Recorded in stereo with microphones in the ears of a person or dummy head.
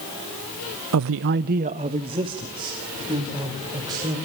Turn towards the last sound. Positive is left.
turn(degrees=-20)  # may be behind; listen again after turning